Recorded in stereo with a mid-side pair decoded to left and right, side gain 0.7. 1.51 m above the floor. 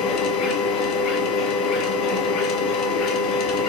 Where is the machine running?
55° left, 0.8 m.